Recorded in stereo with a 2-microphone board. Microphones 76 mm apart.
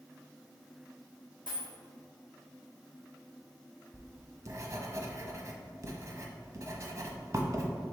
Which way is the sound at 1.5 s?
80° right.